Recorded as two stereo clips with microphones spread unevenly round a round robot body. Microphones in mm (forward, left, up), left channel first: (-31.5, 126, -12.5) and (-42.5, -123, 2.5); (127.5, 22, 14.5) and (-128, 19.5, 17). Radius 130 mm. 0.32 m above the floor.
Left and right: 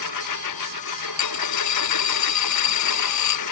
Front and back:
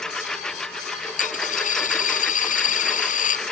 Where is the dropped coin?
60° left.